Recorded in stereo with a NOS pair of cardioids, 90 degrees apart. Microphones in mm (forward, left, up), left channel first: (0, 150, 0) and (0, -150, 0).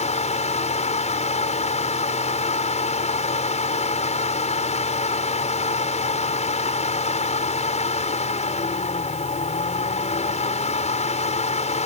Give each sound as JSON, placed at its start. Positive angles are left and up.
{"t": 0.0, "sound": "a fan", "azimuth_deg": 20}